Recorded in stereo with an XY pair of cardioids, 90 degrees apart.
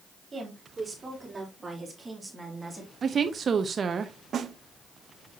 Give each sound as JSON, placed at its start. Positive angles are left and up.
{"t": 0.3, "sound": "a woman speaking", "azimuth_deg": -35, "distance_m": 4.0}
{"t": 3.0, "sound": "a woman speaking", "azimuth_deg": -45, "distance_m": 0.8}
{"t": 4.3, "sound": "a snare drum", "azimuth_deg": -60, "distance_m": 0.6}